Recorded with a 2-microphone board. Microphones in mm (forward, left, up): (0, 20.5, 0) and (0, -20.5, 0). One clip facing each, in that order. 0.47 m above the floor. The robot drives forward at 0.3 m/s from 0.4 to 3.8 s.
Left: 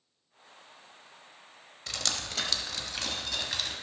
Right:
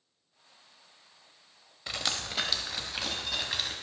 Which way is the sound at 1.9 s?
20° right (ahead or behind).